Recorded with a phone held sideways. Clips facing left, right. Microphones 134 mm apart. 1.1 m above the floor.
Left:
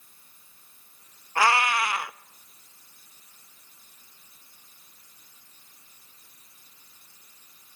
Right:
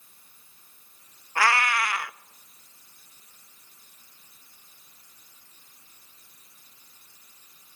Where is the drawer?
I don't hear a drawer.